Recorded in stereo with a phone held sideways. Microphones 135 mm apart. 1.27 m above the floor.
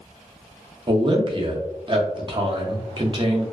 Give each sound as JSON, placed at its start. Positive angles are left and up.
{"t": 0.9, "sound": "a man speaking", "side_deg": -40, "distance_m": 0.6}